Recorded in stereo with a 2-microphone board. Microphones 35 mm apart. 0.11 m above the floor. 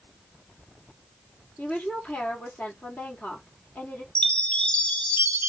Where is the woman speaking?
55° left (ahead or behind), 3 m.